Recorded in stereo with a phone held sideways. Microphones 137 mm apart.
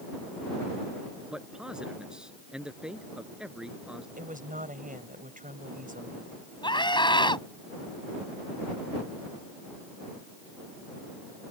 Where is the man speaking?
5° right (ahead or behind).